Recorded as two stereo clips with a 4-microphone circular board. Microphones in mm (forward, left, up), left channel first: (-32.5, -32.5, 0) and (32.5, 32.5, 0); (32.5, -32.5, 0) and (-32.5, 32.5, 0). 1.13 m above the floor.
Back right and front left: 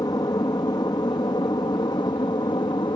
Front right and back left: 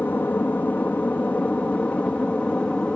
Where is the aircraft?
110° right; by 3.0 s 120° right.